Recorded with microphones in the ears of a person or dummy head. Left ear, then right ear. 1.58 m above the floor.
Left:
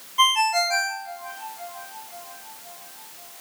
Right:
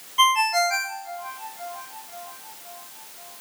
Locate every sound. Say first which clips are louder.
0.2 s a ringtone: even; 5° right (ahead or behind), 1.9 m